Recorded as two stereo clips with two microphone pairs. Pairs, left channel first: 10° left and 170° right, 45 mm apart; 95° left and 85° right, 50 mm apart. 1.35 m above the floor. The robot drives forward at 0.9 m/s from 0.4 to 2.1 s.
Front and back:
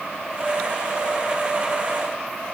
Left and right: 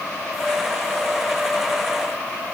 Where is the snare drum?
I don't hear a snare drum.